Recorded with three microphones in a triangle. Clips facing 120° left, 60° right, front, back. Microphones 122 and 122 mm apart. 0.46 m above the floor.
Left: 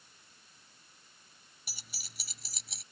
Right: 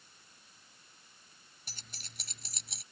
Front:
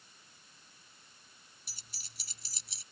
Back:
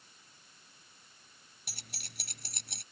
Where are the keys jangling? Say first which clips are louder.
Even, back 12 dB; 160° right; by 2.8 s 150° right.